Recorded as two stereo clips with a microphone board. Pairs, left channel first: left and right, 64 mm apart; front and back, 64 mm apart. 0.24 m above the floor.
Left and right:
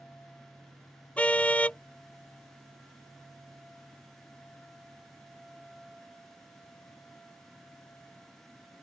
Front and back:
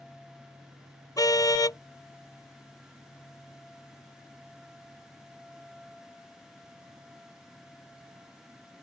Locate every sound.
1.2 s a car horn: 20° left